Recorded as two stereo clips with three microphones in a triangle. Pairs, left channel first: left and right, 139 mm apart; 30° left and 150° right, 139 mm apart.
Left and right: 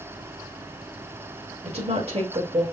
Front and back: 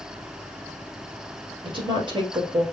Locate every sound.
1.6 s a woman speaking: 110° right, 2.0 m